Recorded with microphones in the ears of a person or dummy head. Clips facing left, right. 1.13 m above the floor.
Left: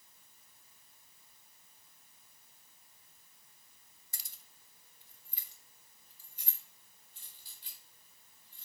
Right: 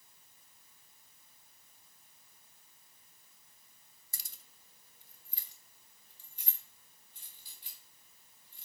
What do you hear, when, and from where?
4.1 s keys jangling: 80° right, 0.8 m; by 8.7 s 10° right (ahead or behind), 4.5 m